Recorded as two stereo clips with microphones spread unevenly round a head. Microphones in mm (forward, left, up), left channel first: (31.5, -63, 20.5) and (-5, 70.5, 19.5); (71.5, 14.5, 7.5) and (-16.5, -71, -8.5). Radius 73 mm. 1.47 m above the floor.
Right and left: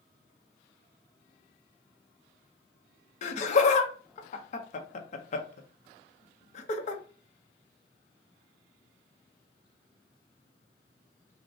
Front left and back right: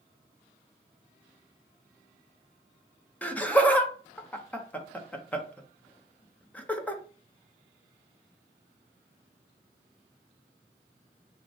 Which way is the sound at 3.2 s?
35° right.